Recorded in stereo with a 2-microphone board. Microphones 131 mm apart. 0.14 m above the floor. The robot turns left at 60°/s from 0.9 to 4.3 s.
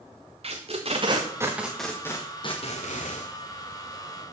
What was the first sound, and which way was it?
Tape being pulled, 50° right (ahead or behind).